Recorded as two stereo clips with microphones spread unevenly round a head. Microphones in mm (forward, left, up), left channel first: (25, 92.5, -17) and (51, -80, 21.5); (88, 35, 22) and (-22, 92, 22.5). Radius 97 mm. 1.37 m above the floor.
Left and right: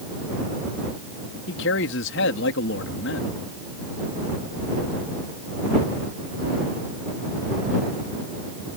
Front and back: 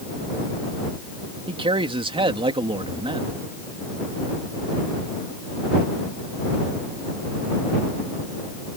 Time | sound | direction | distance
1.5 | a man speaking | 105° left | ?